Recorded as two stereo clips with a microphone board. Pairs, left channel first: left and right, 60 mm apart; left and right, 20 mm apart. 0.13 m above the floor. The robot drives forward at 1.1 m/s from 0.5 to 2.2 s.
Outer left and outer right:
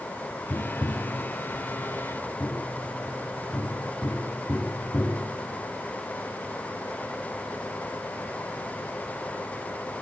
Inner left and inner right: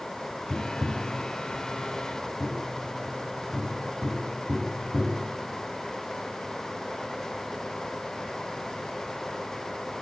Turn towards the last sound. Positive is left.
turn(degrees=15)  # may be behind; listen again after turning